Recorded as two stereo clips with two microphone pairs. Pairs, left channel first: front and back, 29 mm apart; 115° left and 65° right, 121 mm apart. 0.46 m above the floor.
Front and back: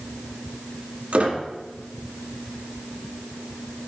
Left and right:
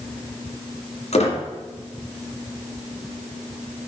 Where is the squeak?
145° left, 1.9 m.